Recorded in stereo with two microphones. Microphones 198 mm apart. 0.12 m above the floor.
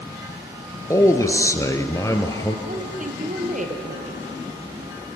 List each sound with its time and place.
0.9 s a man speaking: 15° left (ahead or behind), 1.8 m
2.7 s a woman speaking: 40° right (ahead or behind), 3.5 m